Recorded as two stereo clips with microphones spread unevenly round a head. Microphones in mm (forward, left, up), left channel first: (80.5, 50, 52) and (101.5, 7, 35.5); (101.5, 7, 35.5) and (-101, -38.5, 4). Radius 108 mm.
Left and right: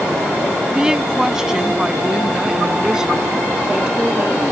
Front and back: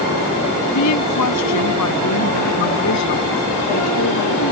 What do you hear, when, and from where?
0.7 s a woman speaking: 15° left